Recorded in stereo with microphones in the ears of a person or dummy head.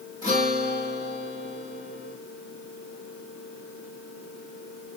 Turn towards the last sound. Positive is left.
turn(degrees=15)  # may be behind; listen again after turning